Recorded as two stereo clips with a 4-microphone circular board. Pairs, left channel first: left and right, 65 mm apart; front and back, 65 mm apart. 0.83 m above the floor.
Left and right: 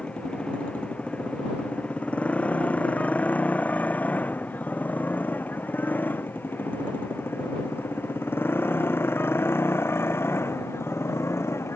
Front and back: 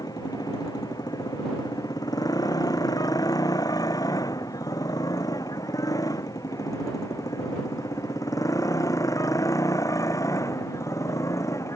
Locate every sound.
0.0 s a motorcycle: 15° left; by 11.8 s 40° left